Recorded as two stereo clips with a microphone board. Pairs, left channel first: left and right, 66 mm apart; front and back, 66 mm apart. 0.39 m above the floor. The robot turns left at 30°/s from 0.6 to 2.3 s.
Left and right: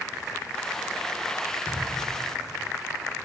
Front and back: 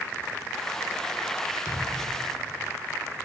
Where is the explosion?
25° left, 4.5 m; by 2.8 s 5° left, 4.5 m.